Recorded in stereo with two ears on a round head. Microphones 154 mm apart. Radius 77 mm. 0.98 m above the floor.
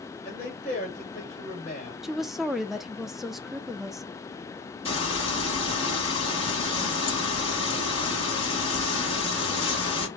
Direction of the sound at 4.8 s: 35° left (ahead or behind).